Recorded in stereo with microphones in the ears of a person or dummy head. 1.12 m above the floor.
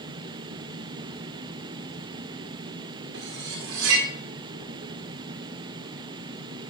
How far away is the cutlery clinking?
About 2 m.